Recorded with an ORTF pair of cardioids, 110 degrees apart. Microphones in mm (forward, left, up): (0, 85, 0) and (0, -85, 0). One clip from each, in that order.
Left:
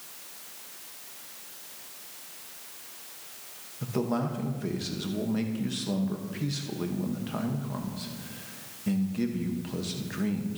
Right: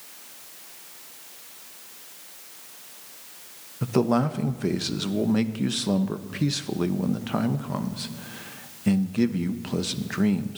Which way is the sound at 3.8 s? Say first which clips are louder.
Right 7 dB; 40° right.